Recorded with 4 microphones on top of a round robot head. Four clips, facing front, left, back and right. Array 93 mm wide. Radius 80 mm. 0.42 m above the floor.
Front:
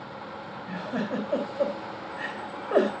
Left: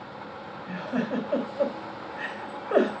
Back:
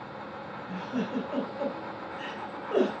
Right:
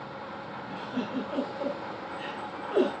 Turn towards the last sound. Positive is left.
turn(degrees=55)